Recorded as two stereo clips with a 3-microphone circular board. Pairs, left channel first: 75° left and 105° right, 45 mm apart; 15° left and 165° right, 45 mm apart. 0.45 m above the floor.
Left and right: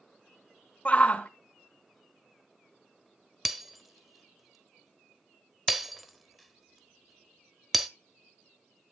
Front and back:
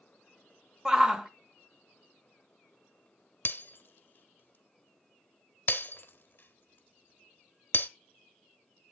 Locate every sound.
0.8 s a shout: 120° left, 1.2 m
3.5 s breaking glass: 20° right, 0.9 m